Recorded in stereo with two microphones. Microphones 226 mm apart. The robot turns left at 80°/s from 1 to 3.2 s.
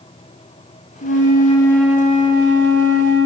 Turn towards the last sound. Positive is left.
turn(degrees=-110)